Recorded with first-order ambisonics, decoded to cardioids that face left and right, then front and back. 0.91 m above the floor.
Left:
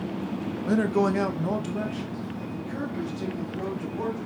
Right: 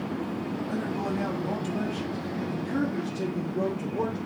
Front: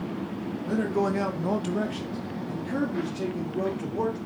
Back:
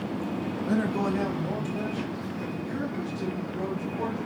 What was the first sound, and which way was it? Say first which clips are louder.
A man speaking: left 10 dB, front 2 dB; 100° left.